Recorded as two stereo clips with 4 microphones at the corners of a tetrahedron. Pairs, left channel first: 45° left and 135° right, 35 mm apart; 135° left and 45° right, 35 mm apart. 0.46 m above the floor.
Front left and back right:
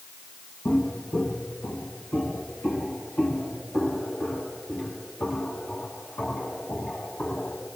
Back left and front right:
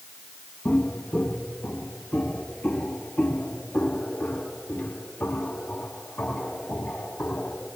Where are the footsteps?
80° left, 2.5 m; by 7.7 s 85° left, 11.5 m.